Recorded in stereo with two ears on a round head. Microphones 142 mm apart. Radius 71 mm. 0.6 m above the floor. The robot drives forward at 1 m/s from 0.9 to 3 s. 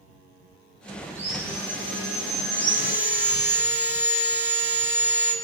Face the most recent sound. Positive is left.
turn(degrees=-15)  # may be behind; listen again after turning